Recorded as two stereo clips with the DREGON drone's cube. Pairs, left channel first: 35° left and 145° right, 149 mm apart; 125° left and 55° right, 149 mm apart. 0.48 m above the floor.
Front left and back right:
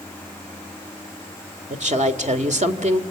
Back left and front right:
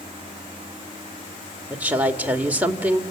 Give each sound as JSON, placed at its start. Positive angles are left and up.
{"t": 1.7, "sound": "a woman speaking", "azimuth_deg": -135, "distance_m": 2.0}